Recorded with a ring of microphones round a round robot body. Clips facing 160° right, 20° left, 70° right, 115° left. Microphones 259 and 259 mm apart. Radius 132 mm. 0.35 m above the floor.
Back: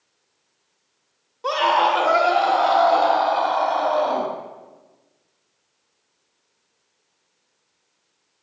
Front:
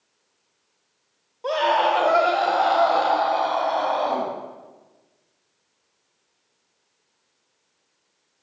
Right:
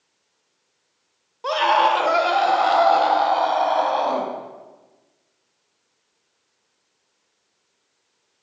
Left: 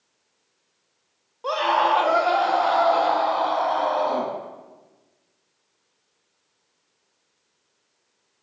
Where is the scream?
95° right, 1.1 m; by 4.3 s 60° right, 2 m.